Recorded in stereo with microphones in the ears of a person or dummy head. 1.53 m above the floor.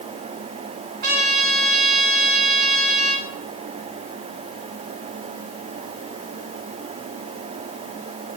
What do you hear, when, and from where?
1.0 s a trumpet: 55° right (ahead or behind), 2.5 m